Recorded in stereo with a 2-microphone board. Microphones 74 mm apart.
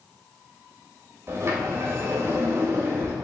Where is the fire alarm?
I don't hear a fire alarm.